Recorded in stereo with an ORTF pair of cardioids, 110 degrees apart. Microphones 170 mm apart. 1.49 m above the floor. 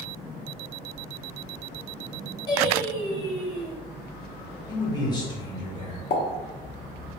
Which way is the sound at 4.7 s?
25° left.